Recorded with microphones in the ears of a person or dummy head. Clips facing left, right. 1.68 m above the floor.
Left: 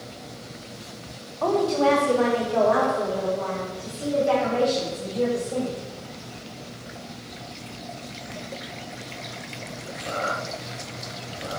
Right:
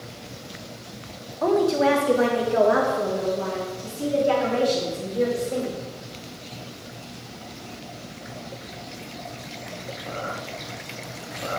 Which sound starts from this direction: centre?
A woman speaking, at 1.4 s.